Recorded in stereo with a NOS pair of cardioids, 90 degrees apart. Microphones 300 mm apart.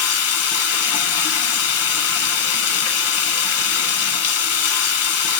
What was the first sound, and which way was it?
Running water, 55° left.